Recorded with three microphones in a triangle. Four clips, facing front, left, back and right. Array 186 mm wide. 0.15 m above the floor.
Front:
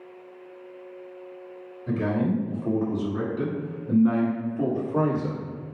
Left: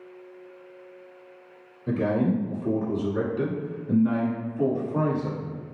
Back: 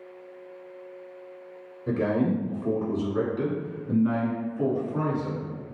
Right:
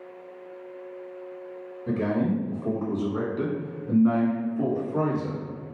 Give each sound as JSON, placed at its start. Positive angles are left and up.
{"t": 1.9, "sound": "a man speaking", "azimuth_deg": -150, "distance_m": 1.5}